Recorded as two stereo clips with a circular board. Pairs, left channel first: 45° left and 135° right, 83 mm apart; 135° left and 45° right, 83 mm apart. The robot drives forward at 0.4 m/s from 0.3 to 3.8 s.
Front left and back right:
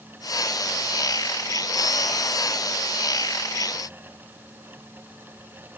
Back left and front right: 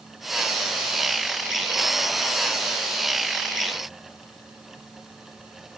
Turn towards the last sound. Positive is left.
No sound to turn to.